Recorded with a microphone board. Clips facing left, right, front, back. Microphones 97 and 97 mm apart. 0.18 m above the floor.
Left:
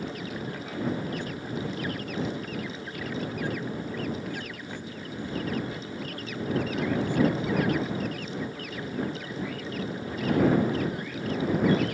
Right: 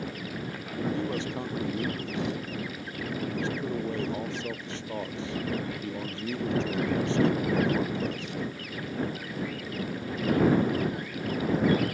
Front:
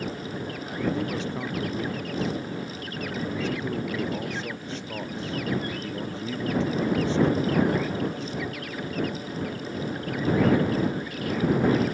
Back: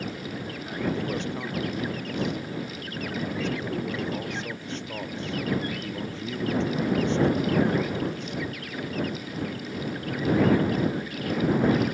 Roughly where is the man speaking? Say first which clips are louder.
Right 2 dB, front 1 dB; right.